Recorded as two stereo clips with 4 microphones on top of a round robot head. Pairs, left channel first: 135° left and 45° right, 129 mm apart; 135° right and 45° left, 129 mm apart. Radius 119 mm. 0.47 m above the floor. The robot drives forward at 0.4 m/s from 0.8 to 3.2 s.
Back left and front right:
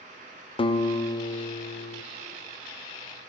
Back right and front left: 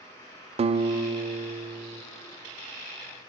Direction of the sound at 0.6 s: 85° left.